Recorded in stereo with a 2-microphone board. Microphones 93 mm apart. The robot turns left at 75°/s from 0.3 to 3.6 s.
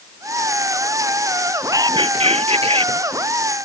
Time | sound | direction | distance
1.7 | whispering | 35° right | ?